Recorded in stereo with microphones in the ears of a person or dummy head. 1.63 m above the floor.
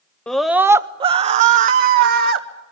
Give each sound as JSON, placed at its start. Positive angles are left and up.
{"t": 0.3, "sound": "a scream", "side_deg": 5, "distance_m": 0.6}